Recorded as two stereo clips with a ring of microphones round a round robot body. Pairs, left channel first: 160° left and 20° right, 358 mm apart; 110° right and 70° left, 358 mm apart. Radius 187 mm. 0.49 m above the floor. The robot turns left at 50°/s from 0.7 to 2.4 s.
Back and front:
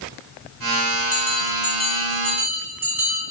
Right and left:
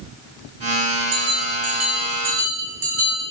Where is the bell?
125° left, 3.5 m; by 3.2 s 60° left, 3.5 m.